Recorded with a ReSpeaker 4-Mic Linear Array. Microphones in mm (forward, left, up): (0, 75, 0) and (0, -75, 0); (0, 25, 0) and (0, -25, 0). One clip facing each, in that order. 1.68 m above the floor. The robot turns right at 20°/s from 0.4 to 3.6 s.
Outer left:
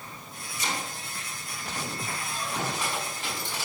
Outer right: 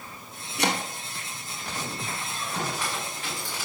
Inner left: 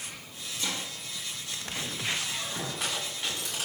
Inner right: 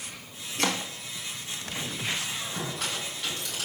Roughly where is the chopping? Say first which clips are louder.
Outer right 7 dB, inner right 7 dB; right.